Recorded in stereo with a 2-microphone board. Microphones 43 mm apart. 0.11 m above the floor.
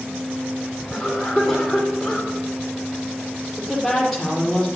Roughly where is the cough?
Centre.